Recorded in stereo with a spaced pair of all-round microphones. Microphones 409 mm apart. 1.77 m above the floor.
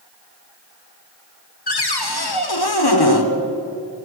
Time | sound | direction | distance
1.7 | a cupboard door | 65° left (ahead or behind) | 1.3 m